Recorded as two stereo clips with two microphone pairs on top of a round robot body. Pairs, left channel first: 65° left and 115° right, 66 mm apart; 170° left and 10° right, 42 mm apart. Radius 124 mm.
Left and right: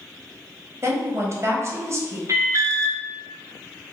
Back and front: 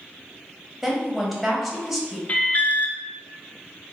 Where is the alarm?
155° right, 0.7 m.